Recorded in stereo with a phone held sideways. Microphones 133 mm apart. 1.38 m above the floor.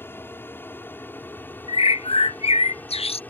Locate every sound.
0.0 s an aircraft: 15° left (ahead or behind); by 3.3 s 10° left (ahead or behind)
1.7 s a bird: 45° left (ahead or behind)